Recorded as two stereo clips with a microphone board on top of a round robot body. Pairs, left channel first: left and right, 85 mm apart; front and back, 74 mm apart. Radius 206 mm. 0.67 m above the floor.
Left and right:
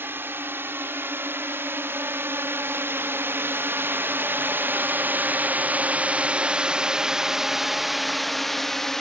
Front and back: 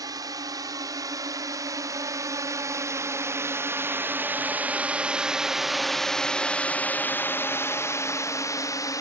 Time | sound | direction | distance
0.0 | a drone | 155° right | ?